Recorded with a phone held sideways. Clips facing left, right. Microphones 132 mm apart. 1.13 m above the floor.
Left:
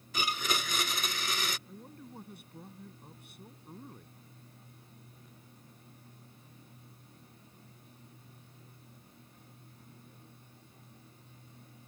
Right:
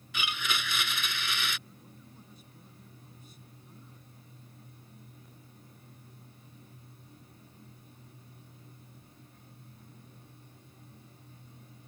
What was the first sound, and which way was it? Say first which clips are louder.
A blender: left 2 dB; 40° left (ahead or behind).